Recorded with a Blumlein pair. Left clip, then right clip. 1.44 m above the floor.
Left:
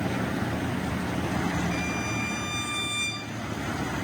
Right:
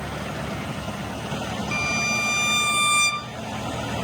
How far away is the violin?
About 0.9 m.